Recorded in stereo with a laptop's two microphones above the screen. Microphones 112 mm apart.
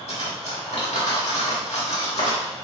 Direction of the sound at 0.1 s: 75° left (ahead or behind).